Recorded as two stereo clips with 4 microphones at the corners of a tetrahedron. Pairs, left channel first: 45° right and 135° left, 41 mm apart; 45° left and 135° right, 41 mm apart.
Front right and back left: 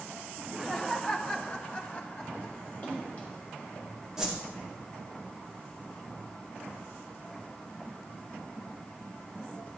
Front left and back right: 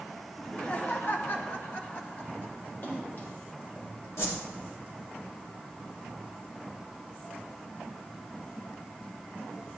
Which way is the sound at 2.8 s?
15° left.